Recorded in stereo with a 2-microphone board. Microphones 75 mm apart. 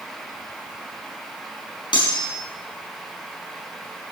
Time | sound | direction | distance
1.9 | cutlery clinking | 80° left | 4 m